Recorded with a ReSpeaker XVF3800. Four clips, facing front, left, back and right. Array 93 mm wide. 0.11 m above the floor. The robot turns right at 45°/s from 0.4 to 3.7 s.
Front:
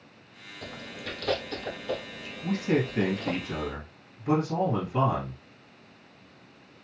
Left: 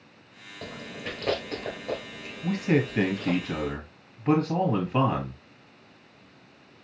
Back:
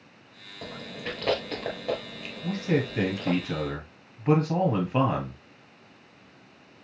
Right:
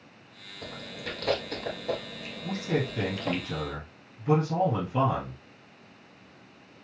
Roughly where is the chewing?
Behind left.